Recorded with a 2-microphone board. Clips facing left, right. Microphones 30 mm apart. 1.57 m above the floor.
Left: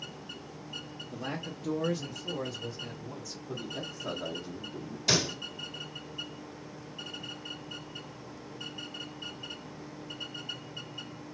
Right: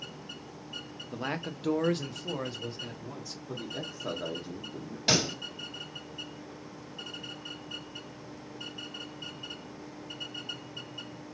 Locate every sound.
1.1 s a man speaking: 35° right (ahead or behind), 0.7 m; by 3.4 s 45° right (ahead or behind), 1.6 m
3.5 s a man speaking: 20° right (ahead or behind), 0.8 m
5.1 s a pop: 40° right (ahead or behind), 2 m